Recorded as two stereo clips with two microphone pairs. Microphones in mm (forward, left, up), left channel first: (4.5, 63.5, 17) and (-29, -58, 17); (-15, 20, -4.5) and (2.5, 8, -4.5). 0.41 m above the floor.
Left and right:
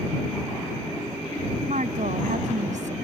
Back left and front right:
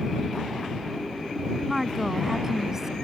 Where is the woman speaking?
125° right; by 2.9 s 100° right.